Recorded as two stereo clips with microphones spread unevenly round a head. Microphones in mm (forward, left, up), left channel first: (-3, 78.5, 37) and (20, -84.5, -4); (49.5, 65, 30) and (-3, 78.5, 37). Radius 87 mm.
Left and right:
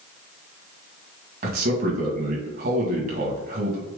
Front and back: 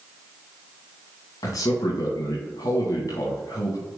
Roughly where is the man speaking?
Ahead right.